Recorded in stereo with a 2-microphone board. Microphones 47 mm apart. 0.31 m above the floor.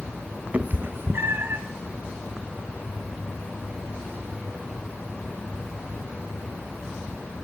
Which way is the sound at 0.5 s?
30° right (ahead or behind).